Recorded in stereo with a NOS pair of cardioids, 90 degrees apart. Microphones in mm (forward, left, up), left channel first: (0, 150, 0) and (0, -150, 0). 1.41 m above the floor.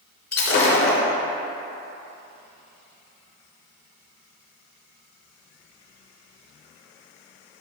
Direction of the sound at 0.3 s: 65° left.